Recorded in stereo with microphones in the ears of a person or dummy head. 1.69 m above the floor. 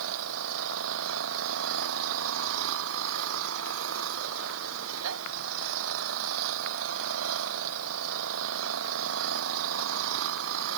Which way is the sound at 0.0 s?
85° right.